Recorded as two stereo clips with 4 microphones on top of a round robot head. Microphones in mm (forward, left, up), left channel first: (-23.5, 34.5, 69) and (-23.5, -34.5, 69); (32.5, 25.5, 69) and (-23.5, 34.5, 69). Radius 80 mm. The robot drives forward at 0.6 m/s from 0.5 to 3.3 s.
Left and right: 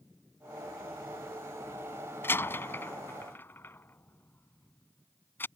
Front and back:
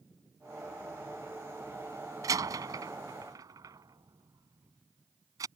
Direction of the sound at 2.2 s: 150° left.